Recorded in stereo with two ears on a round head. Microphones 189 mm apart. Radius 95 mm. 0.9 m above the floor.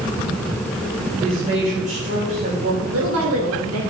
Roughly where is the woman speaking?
Right.